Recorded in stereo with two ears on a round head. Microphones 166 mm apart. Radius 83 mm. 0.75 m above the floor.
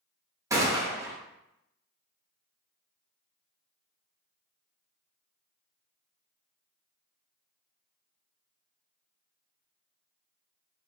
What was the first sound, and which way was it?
A gunshot, 15° right (ahead or behind).